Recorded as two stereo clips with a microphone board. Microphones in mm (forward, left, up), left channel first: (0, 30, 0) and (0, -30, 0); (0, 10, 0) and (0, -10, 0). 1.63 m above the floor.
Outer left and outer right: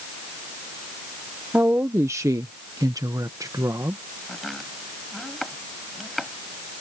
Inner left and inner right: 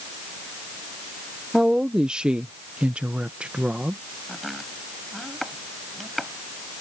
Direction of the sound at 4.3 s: Centre (ahead or behind).